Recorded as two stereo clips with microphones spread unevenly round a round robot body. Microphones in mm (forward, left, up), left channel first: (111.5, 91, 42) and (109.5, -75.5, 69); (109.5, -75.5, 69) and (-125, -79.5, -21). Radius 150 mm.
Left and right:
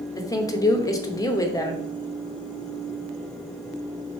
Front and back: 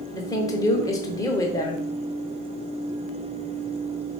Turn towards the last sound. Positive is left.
turn(degrees=105)